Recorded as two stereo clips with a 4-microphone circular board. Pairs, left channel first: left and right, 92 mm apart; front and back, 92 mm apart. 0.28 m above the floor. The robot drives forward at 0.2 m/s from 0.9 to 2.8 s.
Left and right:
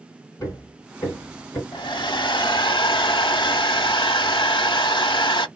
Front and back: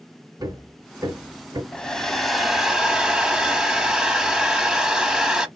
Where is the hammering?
135° left, 2.5 m; by 1.6 s 140° left, 2.5 m.